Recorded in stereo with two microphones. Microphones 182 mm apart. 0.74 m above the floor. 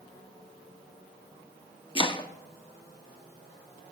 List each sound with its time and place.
1.9 s chopping: 30° left (ahead or behind), 0.8 m